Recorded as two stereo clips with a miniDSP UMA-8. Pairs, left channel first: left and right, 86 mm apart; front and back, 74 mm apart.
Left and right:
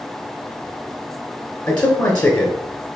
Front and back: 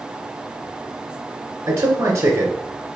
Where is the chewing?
No chewing in this recording.